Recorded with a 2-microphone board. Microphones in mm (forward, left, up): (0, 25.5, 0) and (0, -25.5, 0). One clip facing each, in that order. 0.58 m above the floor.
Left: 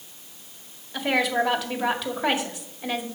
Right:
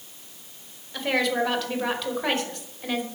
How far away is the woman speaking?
About 2.0 m.